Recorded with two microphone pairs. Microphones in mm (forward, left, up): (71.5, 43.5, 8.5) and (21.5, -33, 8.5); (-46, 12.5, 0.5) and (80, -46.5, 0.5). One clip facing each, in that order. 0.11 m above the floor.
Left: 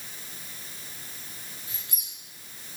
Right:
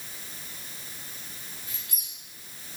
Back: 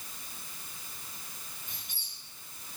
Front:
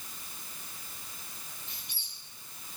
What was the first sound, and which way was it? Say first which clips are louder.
A squeak: even, even; 115° left.